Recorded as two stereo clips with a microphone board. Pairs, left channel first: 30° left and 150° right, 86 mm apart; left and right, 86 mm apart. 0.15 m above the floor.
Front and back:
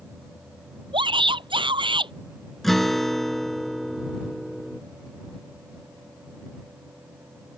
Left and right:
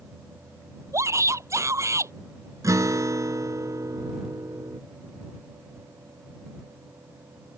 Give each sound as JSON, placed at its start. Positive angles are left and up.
{"t": 0.9, "sound": "a shout", "azimuth_deg": -145}
{"t": 2.6, "sound": "a guitar", "azimuth_deg": -55}